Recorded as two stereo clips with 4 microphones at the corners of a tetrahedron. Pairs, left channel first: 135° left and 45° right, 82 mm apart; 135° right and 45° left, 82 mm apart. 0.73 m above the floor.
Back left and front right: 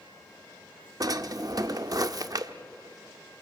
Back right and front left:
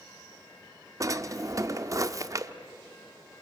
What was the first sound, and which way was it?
A drawer, 5° right.